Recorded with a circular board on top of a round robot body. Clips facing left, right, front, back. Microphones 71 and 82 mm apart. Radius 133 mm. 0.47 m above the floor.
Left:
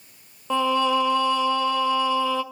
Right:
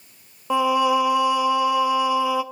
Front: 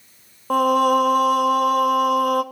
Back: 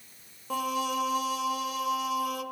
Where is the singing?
15° right, 0.7 m.